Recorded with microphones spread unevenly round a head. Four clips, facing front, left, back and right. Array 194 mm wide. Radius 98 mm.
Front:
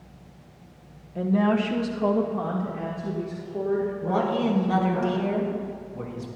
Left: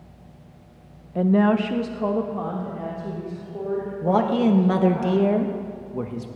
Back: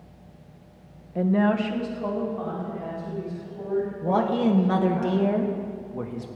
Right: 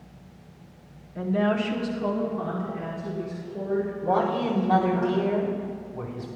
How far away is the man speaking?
About 1.5 m.